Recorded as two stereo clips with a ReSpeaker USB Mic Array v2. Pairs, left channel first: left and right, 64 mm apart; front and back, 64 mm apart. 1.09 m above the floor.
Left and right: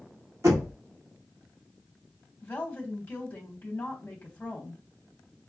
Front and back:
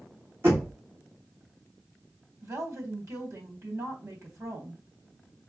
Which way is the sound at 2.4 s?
150° left.